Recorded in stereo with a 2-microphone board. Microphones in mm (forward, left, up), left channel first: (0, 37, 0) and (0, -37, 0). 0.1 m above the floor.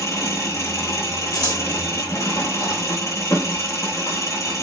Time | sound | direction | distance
0.0 | an engine running | 50° left (ahead or behind) | 1.0 m
1.3 | scissors | 60° left (ahead or behind) | 1.1 m